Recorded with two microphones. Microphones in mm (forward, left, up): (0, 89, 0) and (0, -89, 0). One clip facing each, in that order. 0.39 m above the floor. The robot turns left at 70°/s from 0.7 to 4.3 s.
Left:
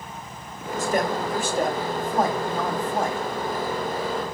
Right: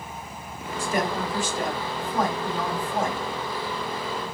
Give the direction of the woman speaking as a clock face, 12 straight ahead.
8 o'clock.